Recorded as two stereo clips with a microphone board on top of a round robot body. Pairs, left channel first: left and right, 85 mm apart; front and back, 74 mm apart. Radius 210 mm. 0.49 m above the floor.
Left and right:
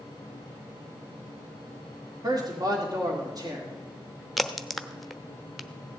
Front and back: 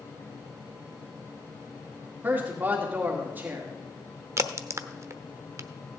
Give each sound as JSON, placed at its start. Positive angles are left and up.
{"t": 2.2, "sound": "a man speaking", "azimuth_deg": -120, "distance_m": 2.5}
{"t": 4.4, "sound": "a crack", "azimuth_deg": 180, "distance_m": 1.0}